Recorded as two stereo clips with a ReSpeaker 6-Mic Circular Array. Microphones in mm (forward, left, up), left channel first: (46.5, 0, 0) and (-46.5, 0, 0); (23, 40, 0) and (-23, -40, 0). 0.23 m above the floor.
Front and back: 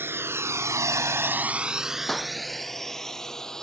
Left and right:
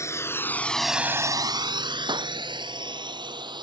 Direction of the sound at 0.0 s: 115° left.